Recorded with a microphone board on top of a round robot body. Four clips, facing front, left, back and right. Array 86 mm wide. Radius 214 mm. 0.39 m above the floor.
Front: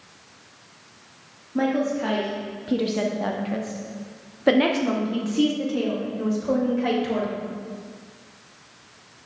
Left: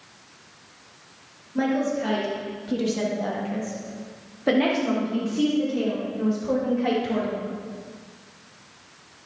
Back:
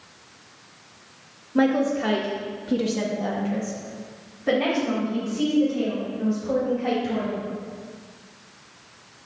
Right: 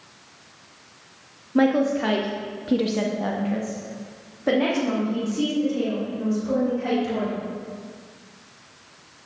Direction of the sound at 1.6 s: 115° right.